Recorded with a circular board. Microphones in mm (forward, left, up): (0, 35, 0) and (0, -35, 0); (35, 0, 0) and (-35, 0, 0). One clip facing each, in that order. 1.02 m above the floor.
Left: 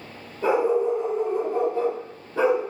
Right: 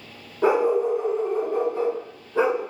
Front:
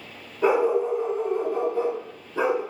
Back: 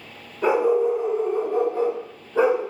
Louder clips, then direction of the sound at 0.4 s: Right 1 dB, back 2 dB; 90° right.